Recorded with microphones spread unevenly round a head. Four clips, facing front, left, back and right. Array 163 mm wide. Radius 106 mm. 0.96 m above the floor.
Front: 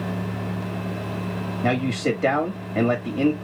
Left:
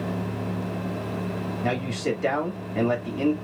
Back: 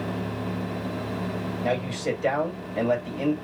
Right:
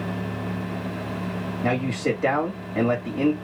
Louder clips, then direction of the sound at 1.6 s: Right 3 dB, front 5 dB; 30° right.